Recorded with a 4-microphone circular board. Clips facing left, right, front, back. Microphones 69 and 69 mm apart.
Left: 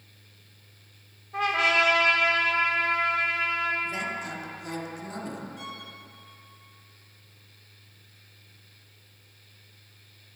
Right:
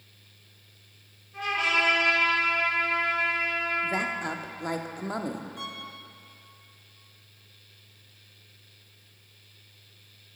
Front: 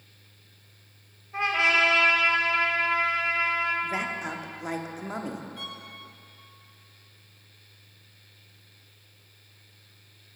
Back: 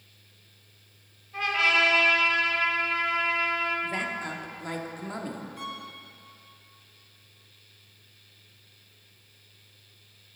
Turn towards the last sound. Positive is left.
turn(degrees=-110)